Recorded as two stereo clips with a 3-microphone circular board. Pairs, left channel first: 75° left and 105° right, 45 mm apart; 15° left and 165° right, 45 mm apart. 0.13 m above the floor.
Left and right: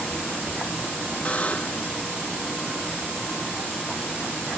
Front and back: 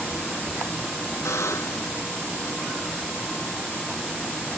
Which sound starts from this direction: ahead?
A buzzer, at 1.2 s.